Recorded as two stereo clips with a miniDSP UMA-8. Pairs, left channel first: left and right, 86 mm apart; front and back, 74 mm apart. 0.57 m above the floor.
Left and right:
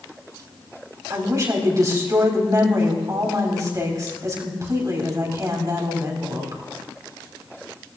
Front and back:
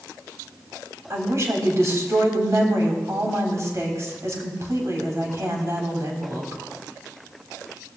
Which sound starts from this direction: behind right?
A woman speaking, at 1.1 s.